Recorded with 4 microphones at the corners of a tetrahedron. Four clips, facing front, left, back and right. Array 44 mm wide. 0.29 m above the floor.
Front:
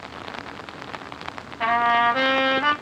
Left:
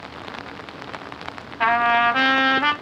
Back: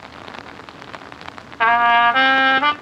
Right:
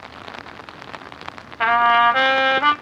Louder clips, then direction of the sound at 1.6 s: Right 3 dB, back 6 dB; 160° right.